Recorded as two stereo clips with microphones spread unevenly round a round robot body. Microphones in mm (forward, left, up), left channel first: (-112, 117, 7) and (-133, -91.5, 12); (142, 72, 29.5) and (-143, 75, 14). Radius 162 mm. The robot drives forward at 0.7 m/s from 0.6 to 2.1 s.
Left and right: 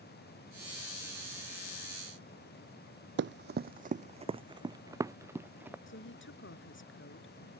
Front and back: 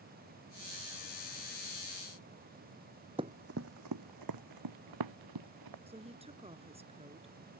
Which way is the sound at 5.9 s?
110° left.